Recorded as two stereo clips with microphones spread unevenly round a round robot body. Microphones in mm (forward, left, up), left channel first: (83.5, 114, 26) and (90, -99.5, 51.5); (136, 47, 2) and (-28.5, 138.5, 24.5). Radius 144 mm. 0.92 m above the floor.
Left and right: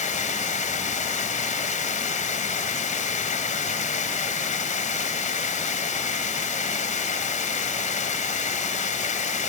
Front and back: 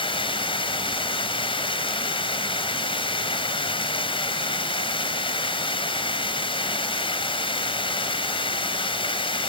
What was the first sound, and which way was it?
Running water, 35° left.